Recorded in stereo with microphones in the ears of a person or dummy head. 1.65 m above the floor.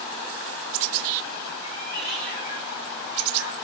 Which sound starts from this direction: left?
A cat meowing, at 1.6 s.